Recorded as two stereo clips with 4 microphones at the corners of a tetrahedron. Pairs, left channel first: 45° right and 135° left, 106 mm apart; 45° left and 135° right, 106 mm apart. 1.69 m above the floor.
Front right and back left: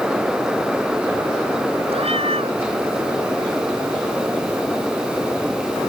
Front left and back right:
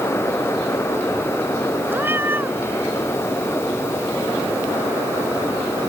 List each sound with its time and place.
1.9 s a cat meowing: 155° left